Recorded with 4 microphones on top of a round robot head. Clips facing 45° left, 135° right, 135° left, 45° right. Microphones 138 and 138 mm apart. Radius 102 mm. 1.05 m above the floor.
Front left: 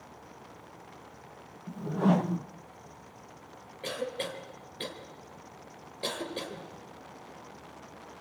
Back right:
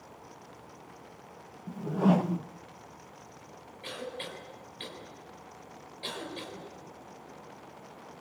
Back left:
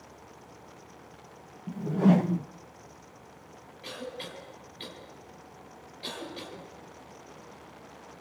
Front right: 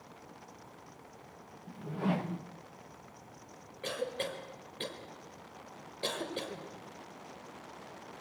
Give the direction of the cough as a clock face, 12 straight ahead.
12 o'clock.